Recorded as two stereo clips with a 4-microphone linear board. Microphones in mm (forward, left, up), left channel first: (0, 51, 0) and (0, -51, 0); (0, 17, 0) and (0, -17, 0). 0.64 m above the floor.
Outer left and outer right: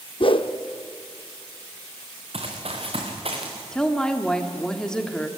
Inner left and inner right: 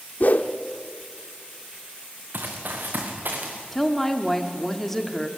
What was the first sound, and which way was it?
A whoosh, 55° left (ahead or behind).